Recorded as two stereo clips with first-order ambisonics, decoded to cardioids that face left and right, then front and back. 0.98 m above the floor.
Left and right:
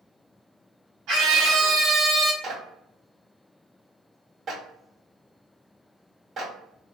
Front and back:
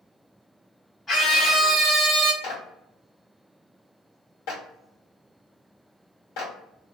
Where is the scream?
75° right, 0.9 m; by 2.3 s 170° right, 0.9 m.